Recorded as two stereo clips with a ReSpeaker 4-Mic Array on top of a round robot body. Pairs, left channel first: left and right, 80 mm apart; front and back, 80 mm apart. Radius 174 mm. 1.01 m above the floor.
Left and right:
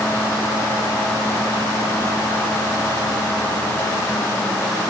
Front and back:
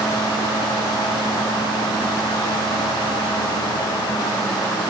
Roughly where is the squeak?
No squeak in this recording.